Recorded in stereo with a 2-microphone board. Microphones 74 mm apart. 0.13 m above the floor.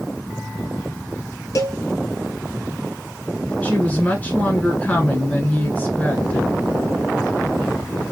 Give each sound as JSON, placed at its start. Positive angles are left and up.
{"t": 1.6, "sound": "a cowbell", "side_deg": 50, "distance_m": 1.1}
{"t": 3.6, "sound": "a woman speaking", "side_deg": 20, "distance_m": 1.4}